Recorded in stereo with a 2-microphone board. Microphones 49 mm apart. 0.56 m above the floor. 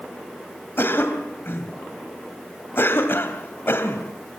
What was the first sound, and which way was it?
A cough, 50° left (ahead or behind).